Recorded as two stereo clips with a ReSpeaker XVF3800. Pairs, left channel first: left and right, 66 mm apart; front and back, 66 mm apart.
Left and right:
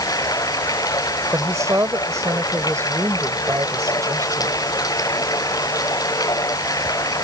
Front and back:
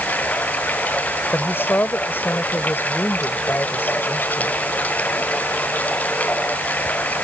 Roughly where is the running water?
Ahead left.